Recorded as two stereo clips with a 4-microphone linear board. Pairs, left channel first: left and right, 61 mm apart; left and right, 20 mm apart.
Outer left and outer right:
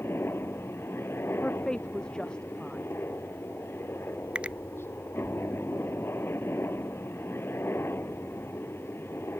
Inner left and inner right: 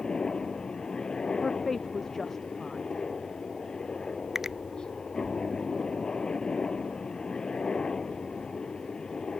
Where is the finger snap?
20° right (ahead or behind).